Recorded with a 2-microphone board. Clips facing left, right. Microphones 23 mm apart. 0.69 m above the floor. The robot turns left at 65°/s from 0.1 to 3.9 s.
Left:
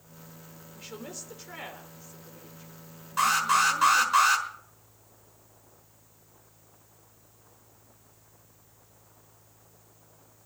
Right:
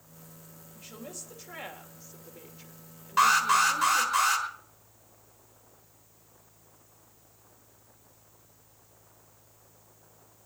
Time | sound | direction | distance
0.7 | a woman speaking | 65° left | 2.5 m
3.2 | an alarm | 145° right | 5 m